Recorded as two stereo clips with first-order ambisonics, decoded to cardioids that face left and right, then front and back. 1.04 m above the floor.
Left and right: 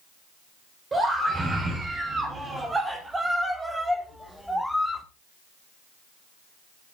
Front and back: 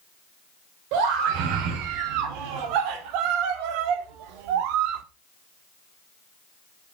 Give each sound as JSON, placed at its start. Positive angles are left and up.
{"t": 0.9, "sound": "a scream", "azimuth_deg": -165, "distance_m": 3.5}